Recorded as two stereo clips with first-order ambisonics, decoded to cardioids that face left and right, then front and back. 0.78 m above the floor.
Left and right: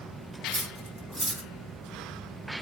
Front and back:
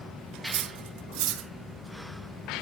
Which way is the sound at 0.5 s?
165° right.